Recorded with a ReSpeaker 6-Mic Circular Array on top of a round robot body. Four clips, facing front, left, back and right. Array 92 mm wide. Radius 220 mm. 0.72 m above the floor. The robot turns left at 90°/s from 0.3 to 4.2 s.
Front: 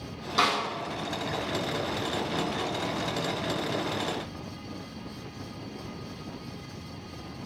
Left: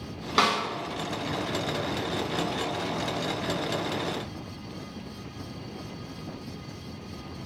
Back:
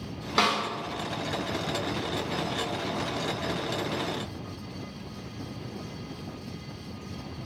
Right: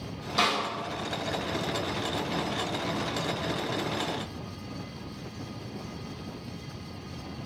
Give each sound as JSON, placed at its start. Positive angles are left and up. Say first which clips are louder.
{"t": 0.4, "sound": "a snare drum", "louder": "left 3 dB, even", "azimuth_deg": 120, "distance_m": 2.0}